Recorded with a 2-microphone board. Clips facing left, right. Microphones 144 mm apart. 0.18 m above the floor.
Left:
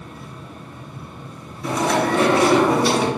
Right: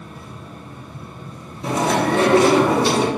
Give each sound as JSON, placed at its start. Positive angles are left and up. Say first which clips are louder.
{"t": 1.6, "sound": "chewing", "louder": "right 1 dB", "side_deg": -25, "distance_m": 1.5}